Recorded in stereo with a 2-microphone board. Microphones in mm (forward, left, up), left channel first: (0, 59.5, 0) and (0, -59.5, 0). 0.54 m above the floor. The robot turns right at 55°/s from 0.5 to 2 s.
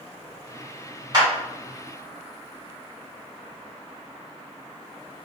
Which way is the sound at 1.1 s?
40° right (ahead or behind).